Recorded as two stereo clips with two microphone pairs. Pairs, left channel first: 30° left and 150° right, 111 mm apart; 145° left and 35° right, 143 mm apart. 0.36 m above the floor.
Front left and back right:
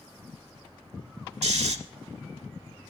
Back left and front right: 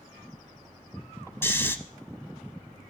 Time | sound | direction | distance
1.4 | snoring | 140° right | 0.8 m